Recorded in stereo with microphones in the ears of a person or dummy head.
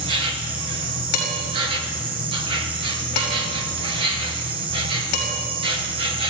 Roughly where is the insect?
Right.